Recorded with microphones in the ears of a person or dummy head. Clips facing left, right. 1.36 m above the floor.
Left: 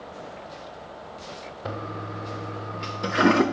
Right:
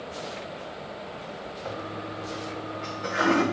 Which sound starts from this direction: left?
A toilet flushing, at 1.6 s.